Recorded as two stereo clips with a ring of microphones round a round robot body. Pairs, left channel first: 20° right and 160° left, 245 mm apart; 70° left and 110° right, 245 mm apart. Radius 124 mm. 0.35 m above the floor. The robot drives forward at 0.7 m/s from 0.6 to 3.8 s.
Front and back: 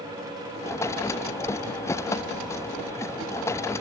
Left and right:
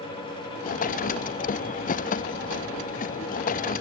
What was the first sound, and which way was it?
Only background noise.